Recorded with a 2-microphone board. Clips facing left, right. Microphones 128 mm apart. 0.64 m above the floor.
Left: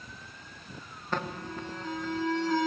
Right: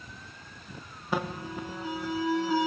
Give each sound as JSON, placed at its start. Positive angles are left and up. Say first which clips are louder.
{"t": 1.1, "sound": "an alarm", "louder": "right 2 dB", "side_deg": -10, "distance_m": 0.6}